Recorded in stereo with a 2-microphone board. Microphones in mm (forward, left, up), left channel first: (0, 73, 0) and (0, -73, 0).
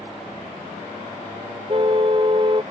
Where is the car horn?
35° right (ahead or behind).